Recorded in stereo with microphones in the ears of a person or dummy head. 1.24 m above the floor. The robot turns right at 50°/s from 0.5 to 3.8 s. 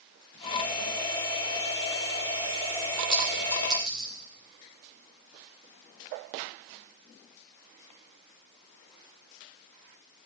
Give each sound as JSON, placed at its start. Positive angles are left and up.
{"t": 3.1, "sound": "a clink", "side_deg": 30, "distance_m": 3.5}